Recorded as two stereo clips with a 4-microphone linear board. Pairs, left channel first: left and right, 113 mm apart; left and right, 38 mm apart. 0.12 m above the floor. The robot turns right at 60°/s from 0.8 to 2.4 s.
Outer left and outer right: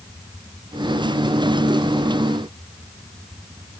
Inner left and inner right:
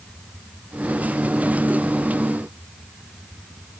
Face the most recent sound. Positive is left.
No sound to turn to.